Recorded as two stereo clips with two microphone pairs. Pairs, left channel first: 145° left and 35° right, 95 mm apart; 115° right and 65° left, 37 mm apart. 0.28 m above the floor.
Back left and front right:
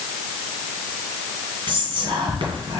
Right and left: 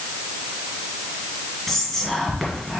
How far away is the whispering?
About 1.8 m.